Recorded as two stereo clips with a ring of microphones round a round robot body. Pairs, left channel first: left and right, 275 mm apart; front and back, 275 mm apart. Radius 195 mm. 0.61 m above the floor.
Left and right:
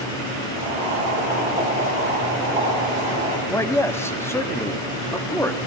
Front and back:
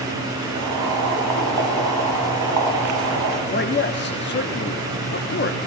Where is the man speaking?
15° left, 1.1 m.